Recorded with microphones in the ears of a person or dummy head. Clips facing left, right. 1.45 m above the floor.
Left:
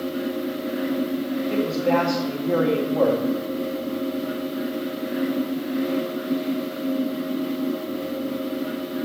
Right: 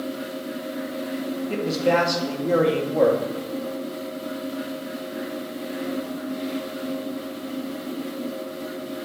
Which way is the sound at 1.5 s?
20° right (ahead or behind).